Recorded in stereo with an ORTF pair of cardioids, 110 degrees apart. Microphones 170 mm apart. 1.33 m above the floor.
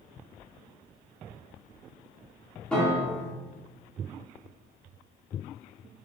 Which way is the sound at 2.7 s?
5° left.